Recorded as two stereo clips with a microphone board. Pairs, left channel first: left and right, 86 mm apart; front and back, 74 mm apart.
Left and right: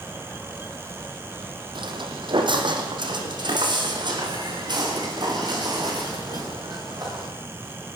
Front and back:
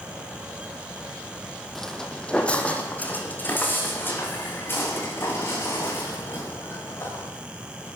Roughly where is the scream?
No scream in this recording.